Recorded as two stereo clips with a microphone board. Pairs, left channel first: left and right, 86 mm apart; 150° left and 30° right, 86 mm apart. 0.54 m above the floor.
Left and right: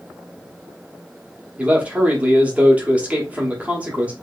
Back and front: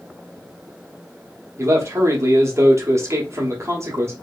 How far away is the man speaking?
About 0.9 m.